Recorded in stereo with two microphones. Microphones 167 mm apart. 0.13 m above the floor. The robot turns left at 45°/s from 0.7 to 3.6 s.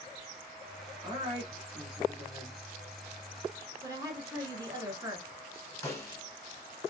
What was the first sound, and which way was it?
A woman speaking, 55° right.